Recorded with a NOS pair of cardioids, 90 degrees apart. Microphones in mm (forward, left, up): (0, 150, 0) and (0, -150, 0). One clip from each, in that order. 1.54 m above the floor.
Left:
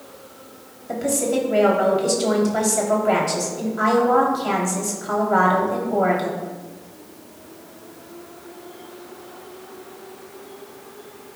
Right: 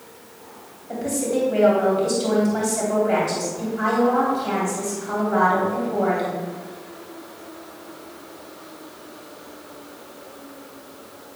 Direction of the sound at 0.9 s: 40° left.